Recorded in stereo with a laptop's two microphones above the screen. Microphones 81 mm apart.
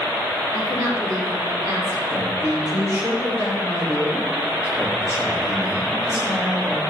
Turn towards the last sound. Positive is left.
turn(degrees=-40)  # may be behind; listen again after turning